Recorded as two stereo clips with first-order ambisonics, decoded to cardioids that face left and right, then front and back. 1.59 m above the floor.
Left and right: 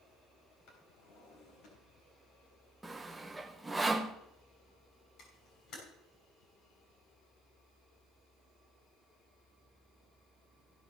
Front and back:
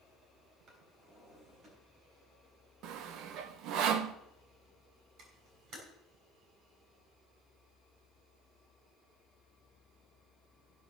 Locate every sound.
0.7 s a drawer: 125° left, 4 m
2.8 s sawing: 170° right, 0.8 m
5.2 s a camera shutter: 140° left, 6 m